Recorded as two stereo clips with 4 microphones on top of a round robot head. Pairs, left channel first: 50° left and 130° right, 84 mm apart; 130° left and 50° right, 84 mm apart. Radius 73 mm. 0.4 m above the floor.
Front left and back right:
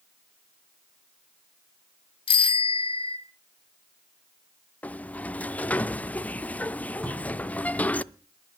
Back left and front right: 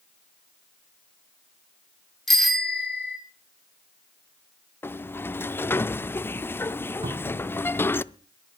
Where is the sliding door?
105° left, 0.6 m.